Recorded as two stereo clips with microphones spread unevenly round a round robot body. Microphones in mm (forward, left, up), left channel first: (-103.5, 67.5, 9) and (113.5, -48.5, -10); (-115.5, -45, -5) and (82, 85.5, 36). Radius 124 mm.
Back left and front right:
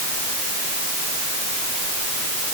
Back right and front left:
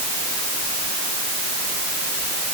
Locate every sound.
Only background noise.